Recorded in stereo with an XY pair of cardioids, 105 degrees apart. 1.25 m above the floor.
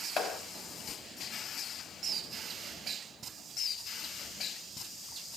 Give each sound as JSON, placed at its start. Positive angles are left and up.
{"t": 0.2, "sound": "a clap", "azimuth_deg": 50, "distance_m": 5.5}